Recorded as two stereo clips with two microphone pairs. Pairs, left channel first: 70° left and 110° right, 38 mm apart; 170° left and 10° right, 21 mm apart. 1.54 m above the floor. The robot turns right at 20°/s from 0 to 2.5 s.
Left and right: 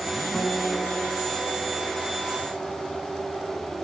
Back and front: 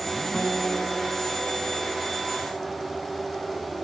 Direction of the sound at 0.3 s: 145° left.